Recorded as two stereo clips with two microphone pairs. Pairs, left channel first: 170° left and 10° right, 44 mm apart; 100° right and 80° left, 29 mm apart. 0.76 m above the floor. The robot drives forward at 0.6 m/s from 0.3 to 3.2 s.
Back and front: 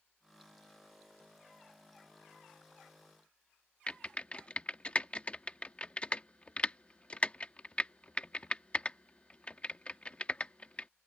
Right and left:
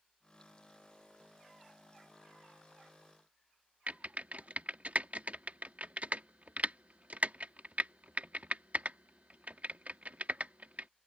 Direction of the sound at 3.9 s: 105° left.